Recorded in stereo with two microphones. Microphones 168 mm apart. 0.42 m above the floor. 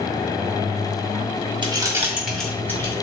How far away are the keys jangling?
About 0.6 m.